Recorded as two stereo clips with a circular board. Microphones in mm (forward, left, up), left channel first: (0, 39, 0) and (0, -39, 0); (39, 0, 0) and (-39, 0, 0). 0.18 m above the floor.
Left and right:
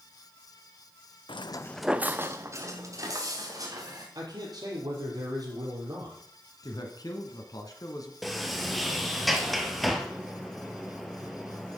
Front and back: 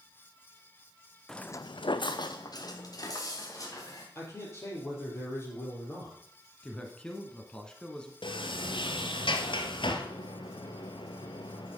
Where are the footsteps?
85° left, 0.7 m; by 4.0 s 45° right, 3.5 m.